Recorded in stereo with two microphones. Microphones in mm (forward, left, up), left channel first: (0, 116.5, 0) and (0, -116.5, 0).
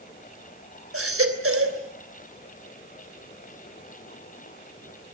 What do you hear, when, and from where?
0.9 s a baby crying: 70° right (ahead or behind), 3 m